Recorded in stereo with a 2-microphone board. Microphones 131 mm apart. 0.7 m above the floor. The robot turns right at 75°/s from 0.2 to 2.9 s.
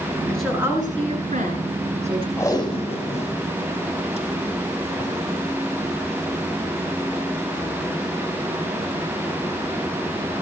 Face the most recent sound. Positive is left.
turn(degrees=55)  # may be behind; listen again after turning